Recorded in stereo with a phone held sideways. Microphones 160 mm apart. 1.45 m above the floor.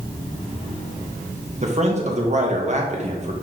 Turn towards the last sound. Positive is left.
turn(degrees=-45)  # may be behind; listen again after turning